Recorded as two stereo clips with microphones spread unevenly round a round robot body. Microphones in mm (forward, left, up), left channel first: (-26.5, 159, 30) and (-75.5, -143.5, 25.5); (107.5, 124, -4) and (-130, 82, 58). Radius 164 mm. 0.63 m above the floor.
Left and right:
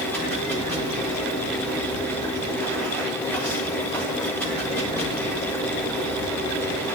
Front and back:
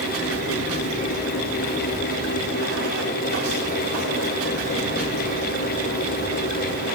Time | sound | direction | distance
0.0 | running water | 165° left | 6.5 m